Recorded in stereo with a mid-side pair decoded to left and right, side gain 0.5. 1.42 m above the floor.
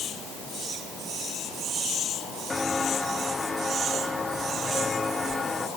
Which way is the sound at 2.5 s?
15° left.